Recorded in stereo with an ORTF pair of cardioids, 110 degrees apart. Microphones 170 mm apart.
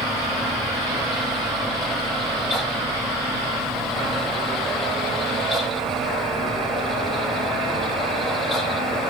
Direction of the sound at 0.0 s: Straight ahead.